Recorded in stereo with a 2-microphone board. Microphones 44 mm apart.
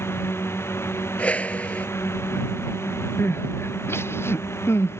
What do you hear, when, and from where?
0.0 s a drone: 70° left (ahead or behind); by 5.0 s 75° left (ahead or behind)
1.2 s a whoosh: 30° left (ahead or behind)
3.2 s crying: 70° left (ahead or behind)